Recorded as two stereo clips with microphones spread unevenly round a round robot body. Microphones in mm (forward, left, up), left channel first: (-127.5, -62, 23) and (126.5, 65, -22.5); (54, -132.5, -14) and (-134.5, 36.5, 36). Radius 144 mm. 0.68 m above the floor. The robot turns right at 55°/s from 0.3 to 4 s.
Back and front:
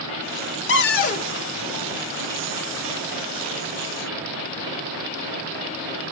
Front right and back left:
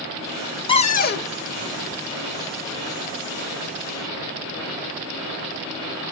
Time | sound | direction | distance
0.7 | a cupboard door | 120° right | 0.5 m